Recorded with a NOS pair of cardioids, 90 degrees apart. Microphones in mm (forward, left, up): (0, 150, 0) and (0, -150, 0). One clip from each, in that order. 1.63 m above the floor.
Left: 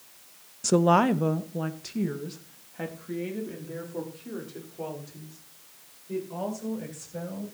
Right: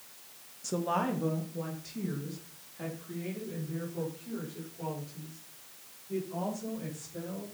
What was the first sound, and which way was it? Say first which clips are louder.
A woman speaking: left 10 dB; 55° left.